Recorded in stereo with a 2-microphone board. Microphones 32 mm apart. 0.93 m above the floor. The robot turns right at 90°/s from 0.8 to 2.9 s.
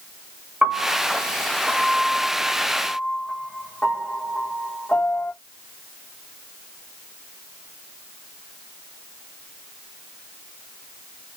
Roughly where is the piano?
Right.